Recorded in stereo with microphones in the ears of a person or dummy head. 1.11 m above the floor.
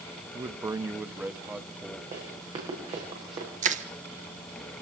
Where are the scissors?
I don't hear scissors.